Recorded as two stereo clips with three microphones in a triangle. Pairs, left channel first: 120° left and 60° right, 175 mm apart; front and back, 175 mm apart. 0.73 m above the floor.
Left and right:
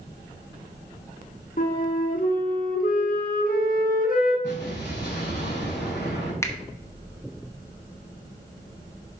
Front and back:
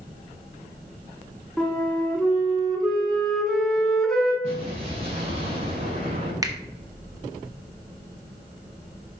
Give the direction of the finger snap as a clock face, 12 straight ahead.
7 o'clock.